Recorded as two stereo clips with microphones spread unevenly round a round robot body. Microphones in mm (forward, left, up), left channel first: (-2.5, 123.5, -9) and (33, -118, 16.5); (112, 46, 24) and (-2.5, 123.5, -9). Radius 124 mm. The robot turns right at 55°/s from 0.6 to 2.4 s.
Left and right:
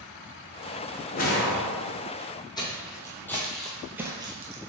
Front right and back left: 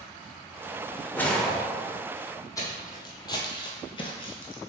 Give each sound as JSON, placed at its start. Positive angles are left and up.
{"t": 1.1, "sound": "a whoosh", "azimuth_deg": 45, "distance_m": 0.9}
{"t": 2.6, "sound": "footsteps", "azimuth_deg": 25, "distance_m": 1.4}